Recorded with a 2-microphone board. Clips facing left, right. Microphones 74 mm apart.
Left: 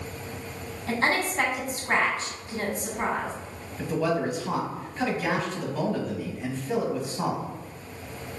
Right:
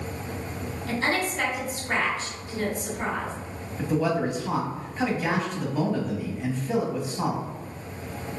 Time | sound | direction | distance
0.9 | a woman speaking | 45° left (ahead or behind) | 1.4 m
3.8 | a man speaking | 5° right (ahead or behind) | 1.0 m